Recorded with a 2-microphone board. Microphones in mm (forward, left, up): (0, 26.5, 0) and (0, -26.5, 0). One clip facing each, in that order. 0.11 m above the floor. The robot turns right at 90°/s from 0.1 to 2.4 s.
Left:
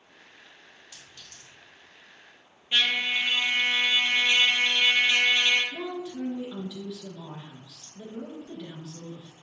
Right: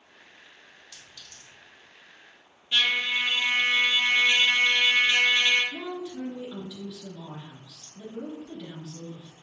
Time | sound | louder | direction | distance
0.9 | a clink | even | 25° left (ahead or behind) | 2.0 m
2.7 | a trumpet | even | 25° left (ahead or behind) | 1.2 m
5.7 | a woman speaking | left 1 dB | 10° left (ahead or behind) | 1.2 m